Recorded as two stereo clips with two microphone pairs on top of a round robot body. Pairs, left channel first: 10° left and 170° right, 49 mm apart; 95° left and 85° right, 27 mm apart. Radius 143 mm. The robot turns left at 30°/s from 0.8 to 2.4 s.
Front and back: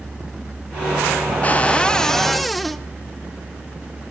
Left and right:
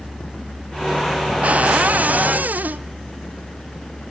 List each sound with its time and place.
1.4 s a cupboard door: 50° right, 0.6 m; by 2.9 s 80° right, 0.6 m